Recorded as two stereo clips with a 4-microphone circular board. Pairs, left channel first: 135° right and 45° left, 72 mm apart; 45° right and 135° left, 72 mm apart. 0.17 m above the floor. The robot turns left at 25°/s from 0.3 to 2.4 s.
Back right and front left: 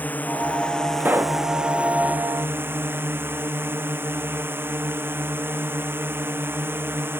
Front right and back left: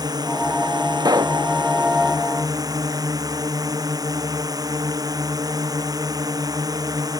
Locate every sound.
0.0 s a drone: 160° left; by 7.2 s 105° left
1.0 s a pop: 110° left; by 1.4 s 100° left